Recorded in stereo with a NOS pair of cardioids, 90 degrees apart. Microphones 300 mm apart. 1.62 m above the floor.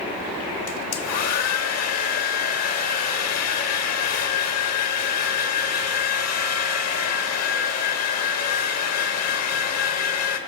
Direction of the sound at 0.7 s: 60° left.